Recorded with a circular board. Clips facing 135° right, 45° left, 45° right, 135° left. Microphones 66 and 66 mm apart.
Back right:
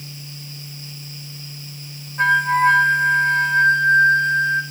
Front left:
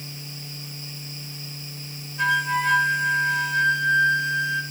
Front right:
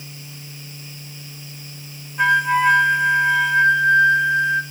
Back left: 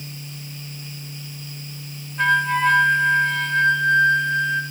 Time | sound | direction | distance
2.2 | a flute | 120° right | 1.6 m